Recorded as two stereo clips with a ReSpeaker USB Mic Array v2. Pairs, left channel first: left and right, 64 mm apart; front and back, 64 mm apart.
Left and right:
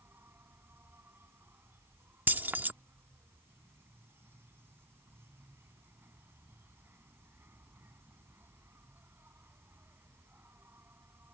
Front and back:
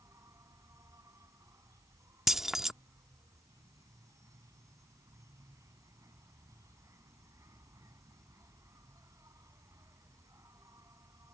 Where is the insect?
145° right.